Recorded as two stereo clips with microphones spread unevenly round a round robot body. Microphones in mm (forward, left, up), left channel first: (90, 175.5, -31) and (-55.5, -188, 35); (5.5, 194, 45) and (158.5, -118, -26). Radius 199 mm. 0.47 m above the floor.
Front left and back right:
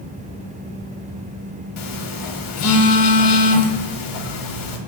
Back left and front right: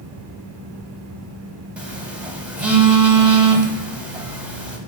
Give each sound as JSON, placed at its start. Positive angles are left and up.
{"t": 1.8, "sound": "a phone buzzing", "azimuth_deg": 25, "distance_m": 0.6}